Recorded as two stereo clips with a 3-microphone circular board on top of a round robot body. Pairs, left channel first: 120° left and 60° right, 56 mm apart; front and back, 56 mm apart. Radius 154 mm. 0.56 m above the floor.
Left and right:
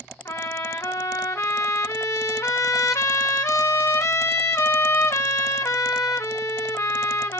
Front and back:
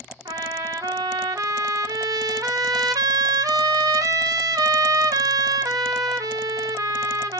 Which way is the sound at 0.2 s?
165° left.